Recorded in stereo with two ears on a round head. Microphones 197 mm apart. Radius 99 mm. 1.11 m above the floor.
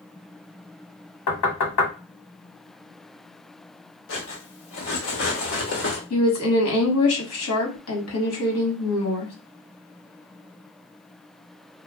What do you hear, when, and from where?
1.3 s knocking: 75° left (ahead or behind), 1.0 m
4.1 s cutlery clinking: 55° left (ahead or behind), 1.0 m
6.1 s a woman speaking: 65° left (ahead or behind), 1.2 m